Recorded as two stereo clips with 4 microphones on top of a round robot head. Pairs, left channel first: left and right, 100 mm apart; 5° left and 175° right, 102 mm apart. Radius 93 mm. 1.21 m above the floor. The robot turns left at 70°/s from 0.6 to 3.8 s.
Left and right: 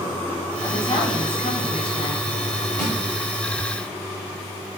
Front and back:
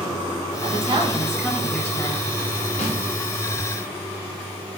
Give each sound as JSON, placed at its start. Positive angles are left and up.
{"t": 0.6, "sound": "a woman speaking", "azimuth_deg": 170, "distance_m": 2.5}
{"t": 2.8, "sound": "a snare drum", "azimuth_deg": 25, "distance_m": 3.5}